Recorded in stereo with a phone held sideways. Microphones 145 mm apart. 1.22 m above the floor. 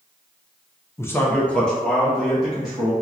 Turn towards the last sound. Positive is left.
turn(degrees=0)  # may be behind; listen again after turning